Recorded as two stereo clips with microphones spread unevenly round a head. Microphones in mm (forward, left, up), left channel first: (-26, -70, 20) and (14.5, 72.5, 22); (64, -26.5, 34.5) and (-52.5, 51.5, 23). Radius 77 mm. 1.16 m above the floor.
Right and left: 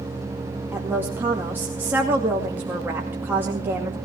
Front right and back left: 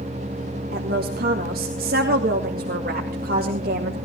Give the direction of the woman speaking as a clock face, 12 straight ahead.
7 o'clock.